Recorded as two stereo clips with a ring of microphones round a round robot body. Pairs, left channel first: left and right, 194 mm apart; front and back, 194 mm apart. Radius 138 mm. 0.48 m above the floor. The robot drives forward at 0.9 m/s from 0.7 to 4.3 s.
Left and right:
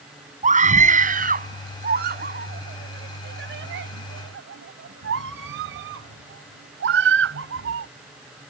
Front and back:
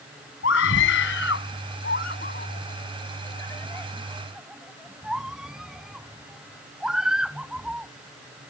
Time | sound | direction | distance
0.4 | a scream | 40° right | ?